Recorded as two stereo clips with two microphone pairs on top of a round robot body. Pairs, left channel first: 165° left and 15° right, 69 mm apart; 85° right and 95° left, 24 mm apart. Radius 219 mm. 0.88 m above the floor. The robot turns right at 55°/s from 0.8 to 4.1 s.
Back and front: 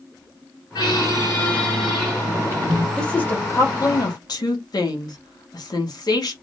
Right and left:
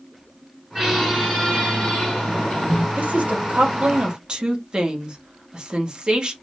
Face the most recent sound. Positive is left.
turn(degrees=145)